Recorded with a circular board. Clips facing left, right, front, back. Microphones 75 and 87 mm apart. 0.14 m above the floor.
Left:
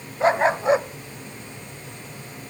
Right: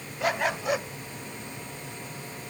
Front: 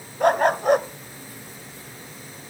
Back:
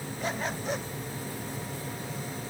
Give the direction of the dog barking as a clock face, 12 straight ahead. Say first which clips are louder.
Left 8 dB, front 15 dB; 11 o'clock.